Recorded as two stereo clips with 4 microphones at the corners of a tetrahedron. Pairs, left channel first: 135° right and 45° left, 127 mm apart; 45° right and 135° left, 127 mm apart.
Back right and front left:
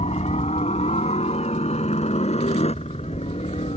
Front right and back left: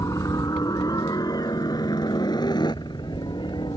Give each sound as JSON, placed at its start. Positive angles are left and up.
{"t": 0.0, "sound": "a helicopter", "azimuth_deg": -110}